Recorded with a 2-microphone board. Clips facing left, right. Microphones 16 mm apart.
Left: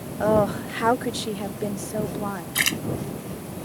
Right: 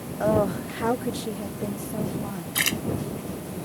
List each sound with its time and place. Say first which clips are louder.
0.2 s a woman speaking: left 2 dB; 20° left (ahead or behind); by 2.5 s 65° left (ahead or behind)
2.5 s a splash: left 2 dB; 5° left (ahead or behind)